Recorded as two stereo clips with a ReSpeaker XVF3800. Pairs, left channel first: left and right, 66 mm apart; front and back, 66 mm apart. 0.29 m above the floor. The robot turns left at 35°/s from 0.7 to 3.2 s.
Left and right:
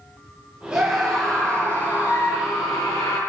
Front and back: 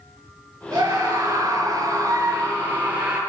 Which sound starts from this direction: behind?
A scream, at 0.7 s.